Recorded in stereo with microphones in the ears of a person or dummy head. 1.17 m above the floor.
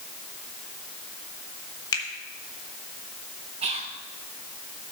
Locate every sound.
1.9 s a finger snap: 25° left (ahead or behind), 1.8 m
3.6 s whispering: 35° right (ahead or behind), 1.1 m